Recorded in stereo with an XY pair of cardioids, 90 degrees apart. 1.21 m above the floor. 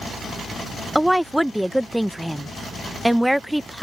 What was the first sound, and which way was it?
A woman speaking, 5° right.